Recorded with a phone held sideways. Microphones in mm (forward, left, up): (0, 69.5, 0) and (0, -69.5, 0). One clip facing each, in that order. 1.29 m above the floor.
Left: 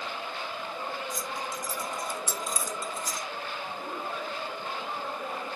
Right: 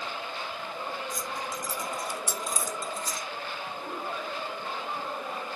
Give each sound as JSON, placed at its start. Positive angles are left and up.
{"t": 1.1, "sound": "keys jangling", "side_deg": -60, "distance_m": 2.0}